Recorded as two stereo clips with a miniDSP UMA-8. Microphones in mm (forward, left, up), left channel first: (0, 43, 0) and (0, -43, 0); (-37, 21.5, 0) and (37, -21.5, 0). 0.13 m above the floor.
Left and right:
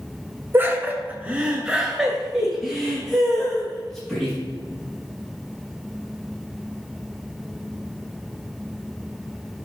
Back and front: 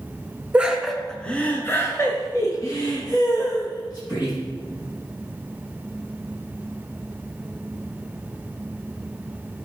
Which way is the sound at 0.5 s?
85° right.